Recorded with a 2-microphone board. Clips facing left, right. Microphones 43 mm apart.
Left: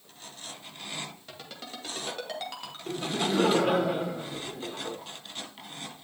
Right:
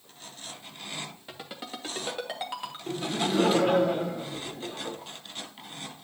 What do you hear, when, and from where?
1.3 s a ringtone: 15° right (ahead or behind), 2.5 m
2.9 s laughter: 5° left (ahead or behind), 1.4 m